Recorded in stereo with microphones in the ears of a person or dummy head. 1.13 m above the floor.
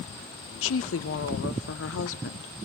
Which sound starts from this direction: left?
A woman speaking, at 0.6 s.